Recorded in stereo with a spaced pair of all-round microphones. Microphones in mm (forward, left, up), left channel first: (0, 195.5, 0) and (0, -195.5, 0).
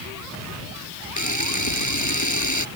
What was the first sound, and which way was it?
A camera shutter, 50° left (ahead or behind).